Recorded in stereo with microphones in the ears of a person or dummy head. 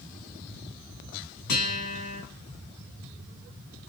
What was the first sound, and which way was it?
A guitar, 65° left (ahead or behind).